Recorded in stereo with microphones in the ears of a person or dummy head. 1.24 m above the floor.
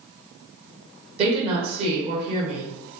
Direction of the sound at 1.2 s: 40° right (ahead or behind).